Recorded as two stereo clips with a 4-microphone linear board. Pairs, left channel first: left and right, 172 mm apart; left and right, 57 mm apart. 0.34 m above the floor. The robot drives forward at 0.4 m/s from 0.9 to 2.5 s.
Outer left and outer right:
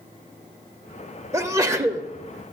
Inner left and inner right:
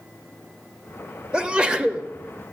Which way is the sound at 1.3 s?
15° right (ahead or behind).